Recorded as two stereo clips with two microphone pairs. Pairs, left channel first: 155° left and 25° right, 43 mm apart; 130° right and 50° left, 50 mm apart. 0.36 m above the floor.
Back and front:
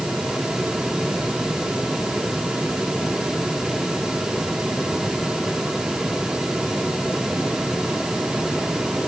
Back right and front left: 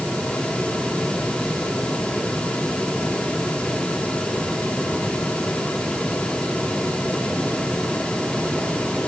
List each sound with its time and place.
Only background noise.